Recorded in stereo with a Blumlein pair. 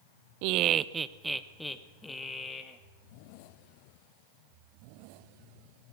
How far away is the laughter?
About 0.7 m.